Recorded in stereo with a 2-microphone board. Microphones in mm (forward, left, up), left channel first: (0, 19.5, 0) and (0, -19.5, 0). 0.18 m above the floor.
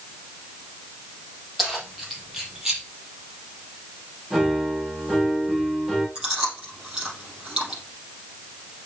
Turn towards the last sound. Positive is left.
turn(degrees=-20)  # may be behind; listen again after turning